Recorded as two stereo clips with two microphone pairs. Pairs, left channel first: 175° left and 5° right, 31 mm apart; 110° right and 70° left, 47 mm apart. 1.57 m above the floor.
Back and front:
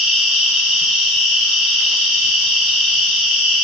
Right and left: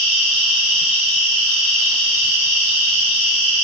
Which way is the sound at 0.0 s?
30° right.